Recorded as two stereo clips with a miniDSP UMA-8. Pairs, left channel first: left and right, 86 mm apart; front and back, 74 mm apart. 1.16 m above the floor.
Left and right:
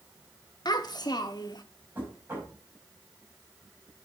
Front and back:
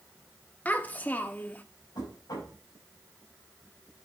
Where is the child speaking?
65° left, 0.9 m.